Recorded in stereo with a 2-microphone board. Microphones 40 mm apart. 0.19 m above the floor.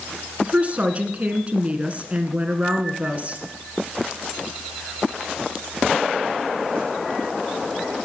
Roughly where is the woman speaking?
Right.